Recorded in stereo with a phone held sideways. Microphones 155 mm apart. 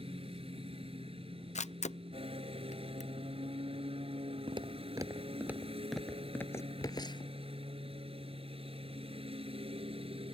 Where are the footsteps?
35° right (ahead or behind); by 7.3 s 35° left (ahead or behind).